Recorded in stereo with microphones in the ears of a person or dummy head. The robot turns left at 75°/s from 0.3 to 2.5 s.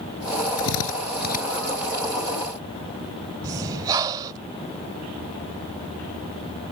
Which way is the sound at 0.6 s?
65° left (ahead or behind).